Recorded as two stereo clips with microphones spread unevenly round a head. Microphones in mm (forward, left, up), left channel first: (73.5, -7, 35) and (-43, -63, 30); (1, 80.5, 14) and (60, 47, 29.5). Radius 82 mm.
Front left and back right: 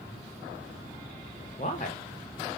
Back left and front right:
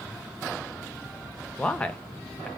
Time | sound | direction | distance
1.6 | a man speaking | 70° left | 0.6 m